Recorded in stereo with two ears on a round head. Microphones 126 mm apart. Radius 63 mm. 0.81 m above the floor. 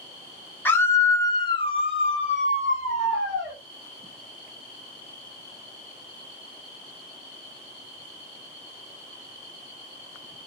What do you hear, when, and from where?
0.7 s a scream: 15° left (ahead or behind), 0.8 m; by 3.6 s 35° left (ahead or behind), 1.1 m